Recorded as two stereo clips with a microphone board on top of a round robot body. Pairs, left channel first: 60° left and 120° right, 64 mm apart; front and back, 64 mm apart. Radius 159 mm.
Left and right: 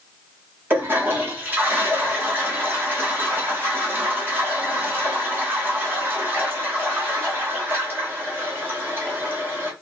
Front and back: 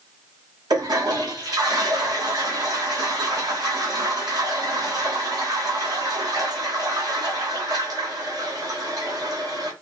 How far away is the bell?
No bell in this recording.